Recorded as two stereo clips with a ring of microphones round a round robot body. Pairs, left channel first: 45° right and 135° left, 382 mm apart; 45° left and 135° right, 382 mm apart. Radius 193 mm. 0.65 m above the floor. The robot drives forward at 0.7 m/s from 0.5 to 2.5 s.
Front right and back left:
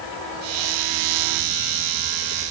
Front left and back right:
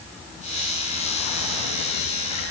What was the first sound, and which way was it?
Only background noise.